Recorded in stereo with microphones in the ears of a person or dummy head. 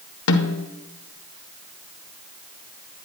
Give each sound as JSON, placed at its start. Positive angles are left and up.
{"t": 0.3, "sound": "a snare drum", "side_deg": 80, "distance_m": 1.1}